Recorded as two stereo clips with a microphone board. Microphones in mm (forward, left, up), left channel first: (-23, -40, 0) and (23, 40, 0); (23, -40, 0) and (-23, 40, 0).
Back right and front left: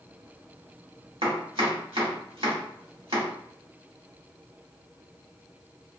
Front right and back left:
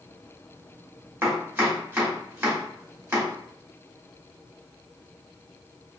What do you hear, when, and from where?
1.2 s chopping: 55° left, 1.1 m